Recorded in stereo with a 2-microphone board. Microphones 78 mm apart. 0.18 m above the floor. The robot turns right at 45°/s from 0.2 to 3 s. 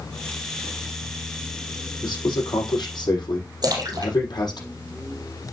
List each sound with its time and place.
2.0 s a man speaking: 65° left, 6 m; by 4.6 s 105° left, 6 m
3.6 s a splash: 55° right (ahead or behind), 2.5 m